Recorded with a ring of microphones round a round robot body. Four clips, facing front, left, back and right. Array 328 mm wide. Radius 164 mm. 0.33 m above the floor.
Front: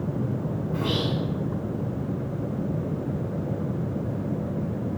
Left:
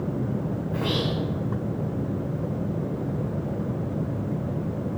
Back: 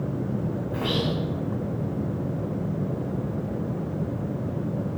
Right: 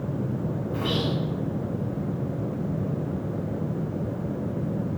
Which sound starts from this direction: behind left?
Whispering, at 0.7 s.